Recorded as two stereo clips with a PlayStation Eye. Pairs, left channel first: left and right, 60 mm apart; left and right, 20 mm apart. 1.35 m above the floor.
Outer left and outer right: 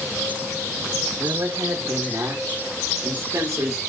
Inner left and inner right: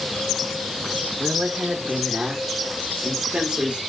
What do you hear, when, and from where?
1.2 s a woman speaking: 70° right (ahead or behind), 2 m; by 3.8 s 65° right (ahead or behind), 3.5 m